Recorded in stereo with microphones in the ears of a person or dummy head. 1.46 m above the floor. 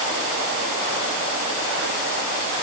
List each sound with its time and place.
Only background noise.